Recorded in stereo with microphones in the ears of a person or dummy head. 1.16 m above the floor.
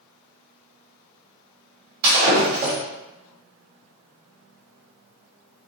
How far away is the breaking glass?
About 1.8 m.